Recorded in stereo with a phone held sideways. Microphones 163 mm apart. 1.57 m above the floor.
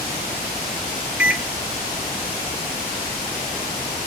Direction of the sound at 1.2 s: 5° right (ahead or behind).